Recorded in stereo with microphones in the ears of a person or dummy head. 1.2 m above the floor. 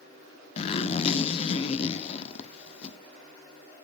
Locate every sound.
0.6 s a zipper: 35° left (ahead or behind), 0.7 m